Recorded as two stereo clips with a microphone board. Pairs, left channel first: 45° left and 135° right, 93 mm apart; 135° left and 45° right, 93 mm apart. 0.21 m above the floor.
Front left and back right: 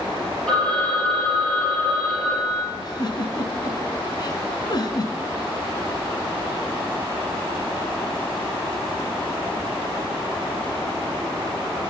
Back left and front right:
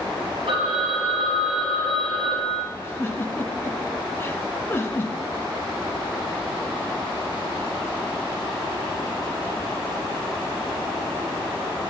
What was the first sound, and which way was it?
A phone ringing, 30° right.